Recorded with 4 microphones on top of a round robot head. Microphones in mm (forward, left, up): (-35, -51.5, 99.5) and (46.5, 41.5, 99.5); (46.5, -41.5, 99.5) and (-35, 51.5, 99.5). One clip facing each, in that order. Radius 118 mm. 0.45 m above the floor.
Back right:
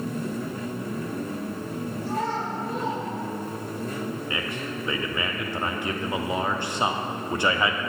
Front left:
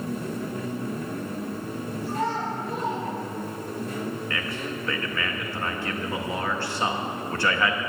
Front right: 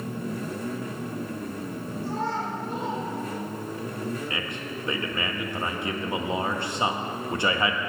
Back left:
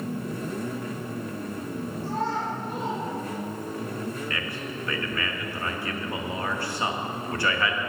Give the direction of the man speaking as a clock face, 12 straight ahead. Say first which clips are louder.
Even, even; 3 o'clock.